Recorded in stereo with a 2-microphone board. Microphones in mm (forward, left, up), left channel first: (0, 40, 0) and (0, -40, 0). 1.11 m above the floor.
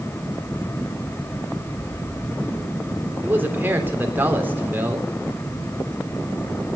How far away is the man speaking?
About 3 m.